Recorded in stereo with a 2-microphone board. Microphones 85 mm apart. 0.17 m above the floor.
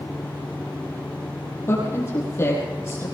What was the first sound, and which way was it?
A woman speaking, 30° left (ahead or behind).